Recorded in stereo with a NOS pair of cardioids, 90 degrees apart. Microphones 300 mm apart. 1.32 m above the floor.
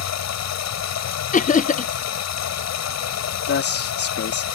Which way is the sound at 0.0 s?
65° left.